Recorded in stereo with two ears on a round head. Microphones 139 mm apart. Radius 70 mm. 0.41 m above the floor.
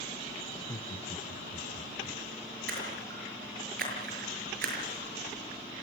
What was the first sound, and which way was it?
Laughter, 15° left (ahead or behind).